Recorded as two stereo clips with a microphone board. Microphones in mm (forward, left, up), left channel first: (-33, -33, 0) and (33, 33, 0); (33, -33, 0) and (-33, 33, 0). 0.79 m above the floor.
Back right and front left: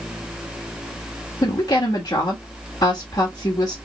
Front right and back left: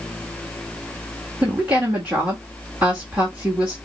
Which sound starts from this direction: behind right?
A woman speaking, at 1.4 s.